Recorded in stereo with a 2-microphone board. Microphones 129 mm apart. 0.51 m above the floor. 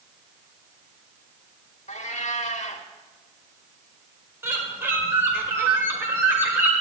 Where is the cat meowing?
65° left (ahead or behind), 0.8 m.